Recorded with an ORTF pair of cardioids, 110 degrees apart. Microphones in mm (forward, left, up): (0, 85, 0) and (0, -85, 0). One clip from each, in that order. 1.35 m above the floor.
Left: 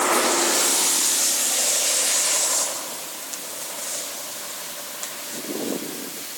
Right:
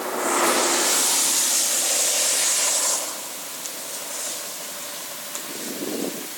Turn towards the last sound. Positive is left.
No sound to turn to.